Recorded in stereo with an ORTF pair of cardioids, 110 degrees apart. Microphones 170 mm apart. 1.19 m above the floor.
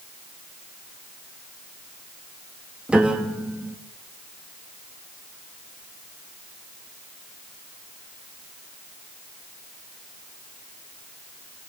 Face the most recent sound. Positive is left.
turn(degrees=-5)